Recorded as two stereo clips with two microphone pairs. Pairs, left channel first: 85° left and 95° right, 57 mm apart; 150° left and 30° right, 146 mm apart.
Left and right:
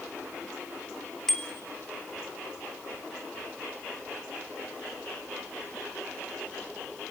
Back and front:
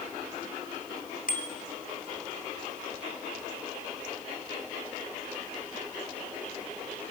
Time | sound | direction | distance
1.3 | a bicycle bell | 170° left | 3 m